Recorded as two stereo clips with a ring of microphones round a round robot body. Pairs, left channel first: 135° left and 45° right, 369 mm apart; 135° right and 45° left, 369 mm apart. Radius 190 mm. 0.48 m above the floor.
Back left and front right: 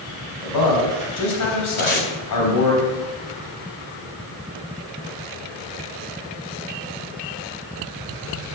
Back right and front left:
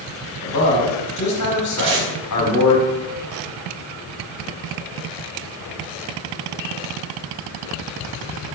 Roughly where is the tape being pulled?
Left.